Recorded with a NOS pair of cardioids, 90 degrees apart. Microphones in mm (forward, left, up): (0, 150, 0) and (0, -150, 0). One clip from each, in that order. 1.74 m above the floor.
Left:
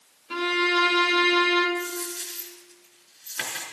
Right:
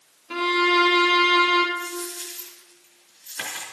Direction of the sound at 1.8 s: 15° left.